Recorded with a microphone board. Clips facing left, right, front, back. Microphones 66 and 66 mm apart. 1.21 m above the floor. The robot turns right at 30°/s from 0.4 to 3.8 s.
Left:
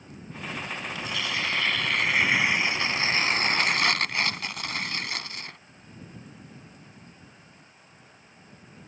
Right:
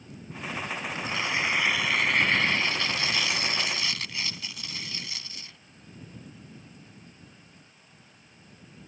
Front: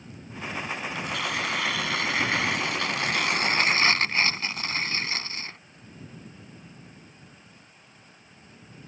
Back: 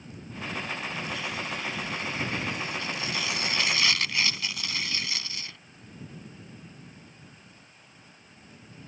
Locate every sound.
0.9 s tearing paper: 35° right; by 5.6 s 55° left